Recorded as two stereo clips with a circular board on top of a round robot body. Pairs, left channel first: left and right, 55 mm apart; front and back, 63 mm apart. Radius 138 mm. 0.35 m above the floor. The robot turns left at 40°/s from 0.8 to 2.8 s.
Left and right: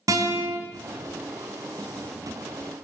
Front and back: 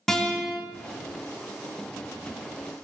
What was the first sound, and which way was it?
A guitar, 85° right.